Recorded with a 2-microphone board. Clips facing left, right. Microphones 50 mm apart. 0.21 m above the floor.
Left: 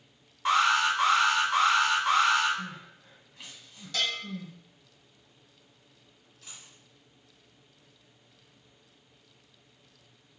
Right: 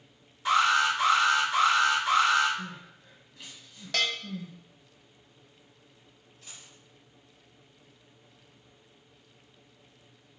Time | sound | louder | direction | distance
0.5 | an alarm | even | 30° left (ahead or behind) | 1.8 m
2.6 | crying | left 1 dB | 30° left (ahead or behind) | 1.3 m
3.9 | a bell | right 2 dB | 65° right (ahead or behind) | 0.8 m
6.4 | a dropped coin | even | 10° left (ahead or behind) | 1.5 m